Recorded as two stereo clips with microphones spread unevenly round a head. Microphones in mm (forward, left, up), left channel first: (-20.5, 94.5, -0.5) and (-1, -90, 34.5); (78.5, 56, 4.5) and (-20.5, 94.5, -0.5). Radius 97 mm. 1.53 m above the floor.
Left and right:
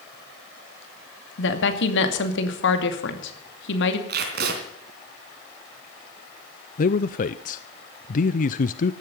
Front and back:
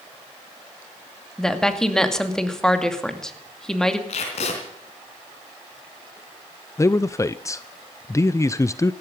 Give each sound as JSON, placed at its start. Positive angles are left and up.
{"t": 1.4, "sound": "a woman speaking", "azimuth_deg": 65, "distance_m": 2.5}
{"t": 4.1, "sound": "tape being pulled", "azimuth_deg": -55, "distance_m": 3.5}
{"t": 6.8, "sound": "a man speaking", "azimuth_deg": 45, "distance_m": 0.5}